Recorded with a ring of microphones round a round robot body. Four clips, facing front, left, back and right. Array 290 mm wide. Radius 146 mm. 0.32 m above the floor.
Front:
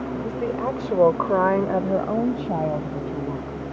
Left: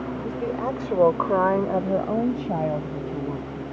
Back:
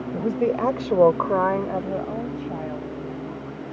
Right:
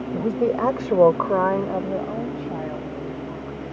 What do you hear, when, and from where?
0.1 s a woman speaking: 125° right; by 3.6 s 40° left